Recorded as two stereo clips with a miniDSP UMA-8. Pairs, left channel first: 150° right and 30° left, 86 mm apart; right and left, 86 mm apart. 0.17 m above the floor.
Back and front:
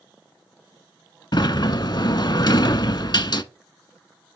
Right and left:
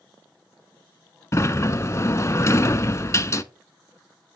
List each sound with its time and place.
1.3 s a sliding door: 135° right, 0.5 m